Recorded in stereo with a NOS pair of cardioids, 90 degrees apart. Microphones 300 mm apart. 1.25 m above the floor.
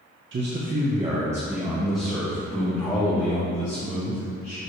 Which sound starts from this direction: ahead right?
A man speaking, at 0.3 s.